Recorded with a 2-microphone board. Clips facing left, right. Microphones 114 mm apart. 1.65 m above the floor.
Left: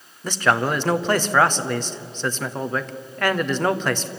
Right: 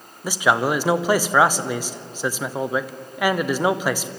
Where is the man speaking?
10° right (ahead or behind), 0.9 m.